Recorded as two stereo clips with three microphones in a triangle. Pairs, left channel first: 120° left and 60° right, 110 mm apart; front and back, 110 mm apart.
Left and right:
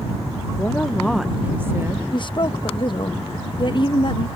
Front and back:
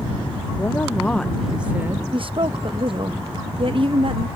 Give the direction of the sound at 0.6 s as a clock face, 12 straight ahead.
10 o'clock.